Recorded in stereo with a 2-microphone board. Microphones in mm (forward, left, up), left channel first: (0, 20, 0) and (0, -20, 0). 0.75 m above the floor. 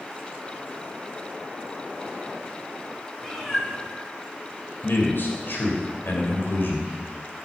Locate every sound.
3.2 s a cat meowing: 10° left (ahead or behind), 3 m
4.8 s a man speaking: 65° left (ahead or behind), 3 m